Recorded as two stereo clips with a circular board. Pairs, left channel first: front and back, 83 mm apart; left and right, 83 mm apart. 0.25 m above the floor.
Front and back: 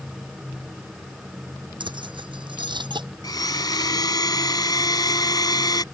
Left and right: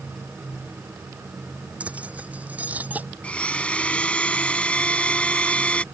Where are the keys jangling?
165° right; by 3.1 s 160° right.